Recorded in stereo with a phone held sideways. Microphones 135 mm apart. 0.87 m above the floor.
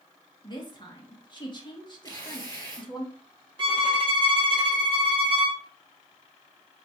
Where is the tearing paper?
25° left (ahead or behind), 2.5 m.